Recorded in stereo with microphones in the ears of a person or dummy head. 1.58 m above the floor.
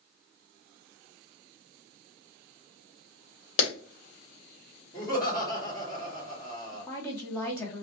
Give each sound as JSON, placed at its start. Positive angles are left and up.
{"t": 3.6, "sound": "a clap", "side_deg": 40, "distance_m": 1.4}
{"t": 4.9, "sound": "laughter", "side_deg": 20, "distance_m": 1.7}
{"t": 6.7, "sound": "a woman speaking", "side_deg": 20, "distance_m": 0.8}